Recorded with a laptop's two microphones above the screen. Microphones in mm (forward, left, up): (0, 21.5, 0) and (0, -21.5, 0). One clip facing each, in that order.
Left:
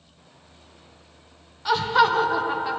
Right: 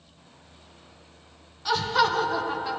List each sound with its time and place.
1.6 s laughter: 15° left (ahead or behind), 0.7 m